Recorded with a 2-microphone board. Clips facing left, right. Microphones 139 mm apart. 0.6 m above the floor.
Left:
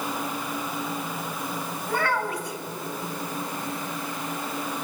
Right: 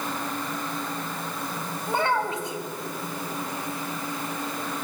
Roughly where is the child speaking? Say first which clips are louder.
Right 2 dB; right.